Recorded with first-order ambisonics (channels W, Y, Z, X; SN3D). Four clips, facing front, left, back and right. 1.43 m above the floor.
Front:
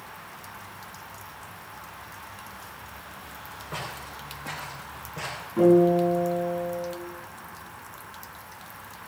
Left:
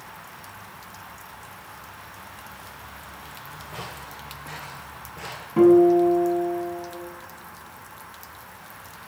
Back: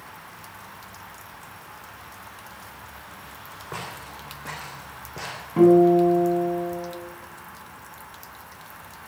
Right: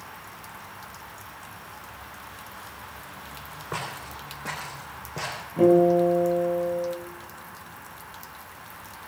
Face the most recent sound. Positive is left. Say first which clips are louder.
# left 3 dB, back 3 dB
turn(degrees=145)